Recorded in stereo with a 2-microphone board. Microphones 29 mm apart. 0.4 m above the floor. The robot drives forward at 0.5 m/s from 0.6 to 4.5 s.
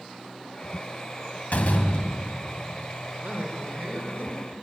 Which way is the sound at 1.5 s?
65° left (ahead or behind).